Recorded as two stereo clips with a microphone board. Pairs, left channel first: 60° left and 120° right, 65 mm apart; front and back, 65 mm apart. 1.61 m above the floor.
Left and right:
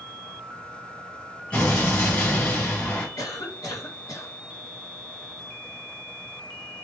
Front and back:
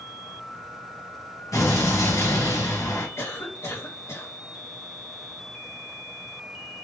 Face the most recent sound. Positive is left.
turn(degrees=40)